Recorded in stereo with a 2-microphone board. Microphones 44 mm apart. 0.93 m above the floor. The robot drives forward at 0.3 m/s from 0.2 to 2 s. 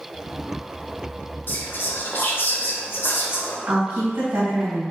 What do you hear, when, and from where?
1.5 s whispering: 55° left (ahead or behind), 0.6 m; by 3.6 s 50° left (ahead or behind), 0.6 m
3.7 s a woman speaking: 70° right (ahead or behind), 1.5 m